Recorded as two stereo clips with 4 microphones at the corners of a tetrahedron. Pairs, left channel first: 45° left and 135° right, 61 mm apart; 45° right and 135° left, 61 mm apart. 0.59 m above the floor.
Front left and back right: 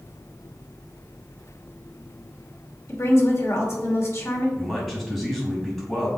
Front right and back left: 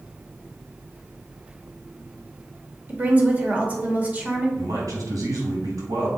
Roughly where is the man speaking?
Behind left.